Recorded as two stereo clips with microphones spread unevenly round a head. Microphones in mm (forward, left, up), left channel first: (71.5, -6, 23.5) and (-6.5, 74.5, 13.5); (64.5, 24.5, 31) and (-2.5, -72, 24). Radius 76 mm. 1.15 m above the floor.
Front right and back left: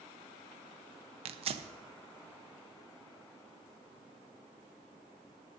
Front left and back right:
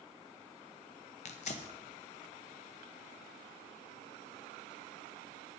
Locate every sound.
1.2 s tearing paper: 100° left, 0.8 m